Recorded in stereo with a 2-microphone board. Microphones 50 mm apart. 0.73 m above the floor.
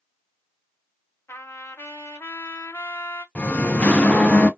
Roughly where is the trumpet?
Left.